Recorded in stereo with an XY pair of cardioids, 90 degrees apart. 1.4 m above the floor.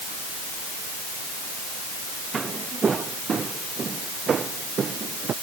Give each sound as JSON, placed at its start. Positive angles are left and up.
{"t": 2.3, "sound": "footsteps", "azimuth_deg": -40}